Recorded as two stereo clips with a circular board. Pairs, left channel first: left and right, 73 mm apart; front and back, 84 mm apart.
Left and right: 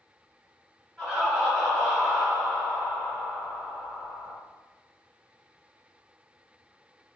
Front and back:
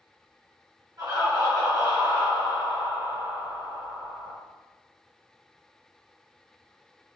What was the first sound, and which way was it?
Laughter, 175° left.